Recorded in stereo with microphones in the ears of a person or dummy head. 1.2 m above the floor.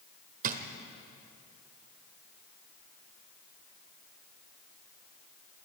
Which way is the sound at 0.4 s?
45° right (ahead or behind).